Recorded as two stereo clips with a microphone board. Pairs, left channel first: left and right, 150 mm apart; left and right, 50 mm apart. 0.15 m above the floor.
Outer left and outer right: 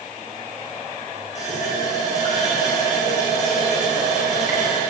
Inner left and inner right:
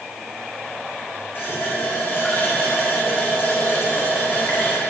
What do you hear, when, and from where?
1.4 s a running tap: 50° left (ahead or behind), 6 m